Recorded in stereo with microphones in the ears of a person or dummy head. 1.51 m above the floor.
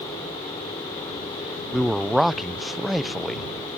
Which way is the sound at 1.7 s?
Centre (ahead or behind).